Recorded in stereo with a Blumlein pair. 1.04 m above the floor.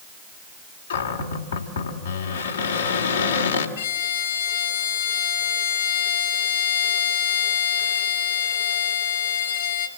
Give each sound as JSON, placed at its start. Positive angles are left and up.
{"t": 0.9, "sound": "a cupboard door", "azimuth_deg": 70, "distance_m": 2.5}
{"t": 3.8, "sound": "a violin", "azimuth_deg": 65, "distance_m": 3.5}